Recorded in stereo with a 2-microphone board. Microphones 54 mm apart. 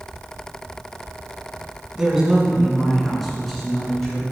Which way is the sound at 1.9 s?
10° right (ahead or behind).